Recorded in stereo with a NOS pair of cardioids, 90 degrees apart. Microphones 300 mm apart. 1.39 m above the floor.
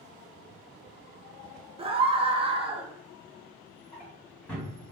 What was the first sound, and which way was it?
A scream, 20° right.